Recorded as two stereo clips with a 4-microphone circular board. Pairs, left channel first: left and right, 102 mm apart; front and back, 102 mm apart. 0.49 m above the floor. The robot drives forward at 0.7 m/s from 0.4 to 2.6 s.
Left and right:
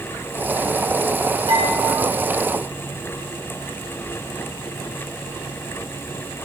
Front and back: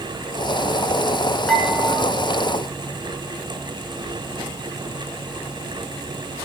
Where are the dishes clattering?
80° right, 3.5 m; by 2.1 s 90° right, 3.5 m.